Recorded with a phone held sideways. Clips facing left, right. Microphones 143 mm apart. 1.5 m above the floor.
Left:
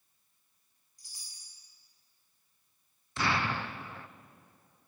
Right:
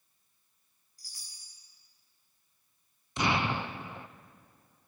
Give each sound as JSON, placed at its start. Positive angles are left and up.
{"t": 1.0, "sound": "a chime", "side_deg": 20, "distance_m": 6.0}
{"t": 3.2, "sound": "an explosion", "side_deg": -20, "distance_m": 0.6}